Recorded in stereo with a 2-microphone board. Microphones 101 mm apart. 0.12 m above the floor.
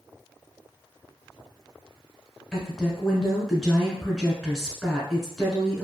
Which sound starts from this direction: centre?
A woman speaking, at 2.5 s.